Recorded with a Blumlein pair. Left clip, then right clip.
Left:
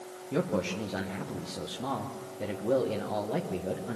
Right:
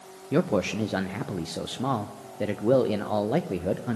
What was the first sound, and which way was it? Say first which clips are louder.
A man speaking: right 5 dB; 65° right.